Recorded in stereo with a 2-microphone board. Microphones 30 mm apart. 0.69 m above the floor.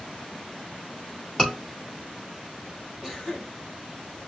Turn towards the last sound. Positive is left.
turn(degrees=-10)  # may be behind; listen again after turning